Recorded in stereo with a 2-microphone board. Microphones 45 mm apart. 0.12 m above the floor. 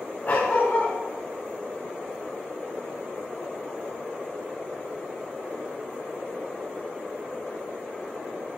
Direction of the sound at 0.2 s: 35° left (ahead or behind).